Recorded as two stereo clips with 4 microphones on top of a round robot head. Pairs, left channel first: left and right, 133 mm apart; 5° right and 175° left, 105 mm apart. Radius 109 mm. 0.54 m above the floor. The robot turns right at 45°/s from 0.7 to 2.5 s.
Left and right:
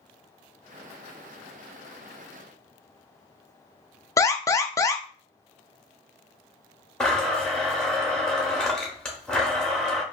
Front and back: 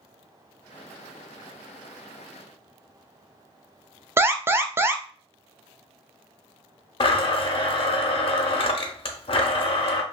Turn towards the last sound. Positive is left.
turn(degrees=5)